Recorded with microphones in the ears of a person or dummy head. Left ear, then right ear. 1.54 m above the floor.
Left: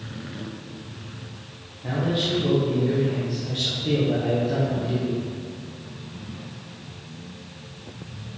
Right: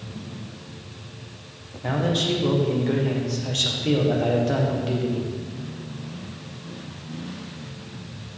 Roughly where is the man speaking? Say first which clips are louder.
Right 2 dB; right.